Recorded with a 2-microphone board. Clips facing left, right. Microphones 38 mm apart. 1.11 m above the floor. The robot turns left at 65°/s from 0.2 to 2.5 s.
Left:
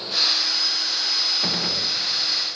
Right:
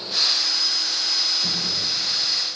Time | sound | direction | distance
1.4 | a gunshot | 60° left | 0.7 m